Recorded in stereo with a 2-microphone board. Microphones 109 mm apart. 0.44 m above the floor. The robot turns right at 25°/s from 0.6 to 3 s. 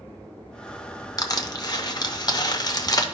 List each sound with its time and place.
1.2 s crushing: 35° left (ahead or behind), 0.7 m